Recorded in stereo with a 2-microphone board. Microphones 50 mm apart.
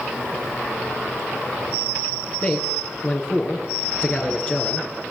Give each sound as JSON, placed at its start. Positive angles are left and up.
{"t": 2.4, "sound": "a man speaking", "side_deg": 25, "distance_m": 8.0}